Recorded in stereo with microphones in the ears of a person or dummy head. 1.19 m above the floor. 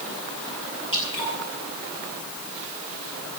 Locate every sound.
0.9 s dripping: 25° left (ahead or behind), 8 m